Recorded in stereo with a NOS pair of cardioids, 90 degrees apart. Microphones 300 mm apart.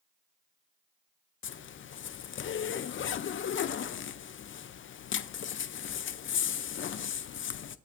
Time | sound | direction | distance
1.4 | a zipper | 40° left | 0.5 m